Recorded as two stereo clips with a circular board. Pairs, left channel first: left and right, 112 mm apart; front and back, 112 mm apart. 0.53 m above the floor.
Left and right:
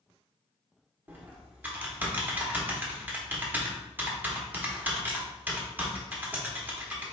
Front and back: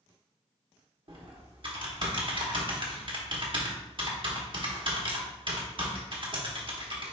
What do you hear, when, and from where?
1.1 s typing on a keyboard: 160° right, 1.1 m